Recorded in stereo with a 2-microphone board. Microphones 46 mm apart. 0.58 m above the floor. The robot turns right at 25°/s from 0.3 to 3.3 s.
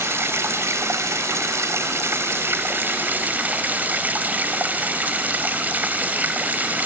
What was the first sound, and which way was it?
Running water, 110° right.